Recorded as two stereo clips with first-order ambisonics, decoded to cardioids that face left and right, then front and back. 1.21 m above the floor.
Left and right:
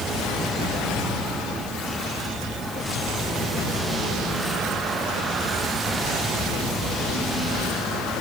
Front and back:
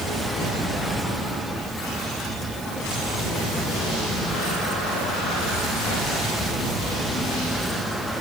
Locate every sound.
Only background noise.